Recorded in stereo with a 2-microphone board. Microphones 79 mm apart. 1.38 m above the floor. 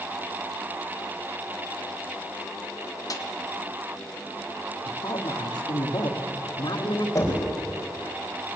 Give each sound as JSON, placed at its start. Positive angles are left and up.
{"t": 3.1, "sound": "a snare drum", "side_deg": 45, "distance_m": 1.7}
{"t": 4.8, "sound": "a woman speaking", "side_deg": 65, "distance_m": 2.5}
{"t": 7.2, "sound": "knocking", "side_deg": 40, "distance_m": 4.5}